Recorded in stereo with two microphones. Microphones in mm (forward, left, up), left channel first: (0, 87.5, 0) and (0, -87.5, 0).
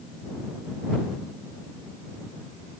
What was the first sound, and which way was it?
Only background noise.